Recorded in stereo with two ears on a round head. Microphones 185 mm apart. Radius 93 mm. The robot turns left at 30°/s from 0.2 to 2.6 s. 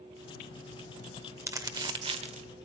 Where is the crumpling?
15° right (ahead or behind), 1.3 m; by 2.5 s 35° right (ahead or behind), 1.3 m.